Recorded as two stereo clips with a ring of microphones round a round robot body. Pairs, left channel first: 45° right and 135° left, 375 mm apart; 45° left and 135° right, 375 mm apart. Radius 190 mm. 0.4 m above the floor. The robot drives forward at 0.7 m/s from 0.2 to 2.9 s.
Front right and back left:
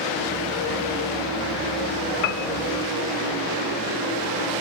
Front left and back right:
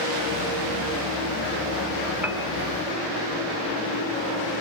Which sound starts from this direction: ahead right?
A piano, at 2.2 s.